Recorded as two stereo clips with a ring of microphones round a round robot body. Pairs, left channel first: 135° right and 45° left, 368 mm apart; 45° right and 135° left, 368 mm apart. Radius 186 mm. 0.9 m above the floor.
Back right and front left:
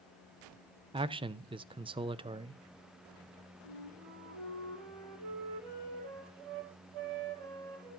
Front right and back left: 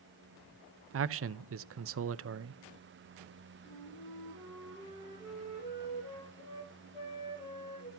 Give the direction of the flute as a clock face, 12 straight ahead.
11 o'clock.